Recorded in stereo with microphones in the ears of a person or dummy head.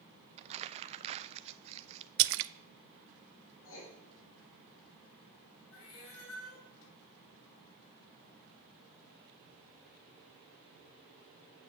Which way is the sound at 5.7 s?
75° left (ahead or behind).